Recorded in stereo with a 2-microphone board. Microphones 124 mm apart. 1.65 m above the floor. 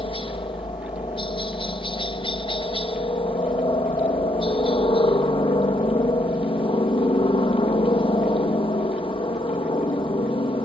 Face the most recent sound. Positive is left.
turn(degrees=45)  # may be behind; listen again after turning